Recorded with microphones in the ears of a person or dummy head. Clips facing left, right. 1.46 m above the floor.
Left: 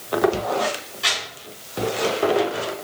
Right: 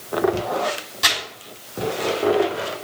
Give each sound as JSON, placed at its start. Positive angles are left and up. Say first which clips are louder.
{"t": 1.0, "sound": "crumpling", "louder": "right 3 dB", "side_deg": -60, "distance_m": 2.5}